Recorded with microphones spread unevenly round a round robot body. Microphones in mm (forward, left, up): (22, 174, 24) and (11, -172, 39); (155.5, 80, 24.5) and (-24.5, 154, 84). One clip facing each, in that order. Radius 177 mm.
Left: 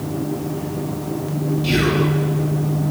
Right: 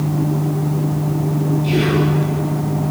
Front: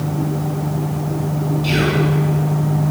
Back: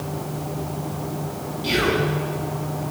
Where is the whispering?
35° left, 5.5 m.